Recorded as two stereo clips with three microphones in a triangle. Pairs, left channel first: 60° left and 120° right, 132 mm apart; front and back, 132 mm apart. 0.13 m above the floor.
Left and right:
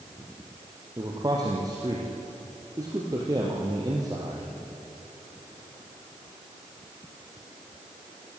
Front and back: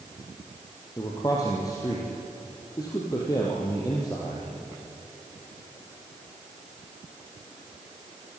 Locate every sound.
1.0 s a man speaking: 60° right, 4 m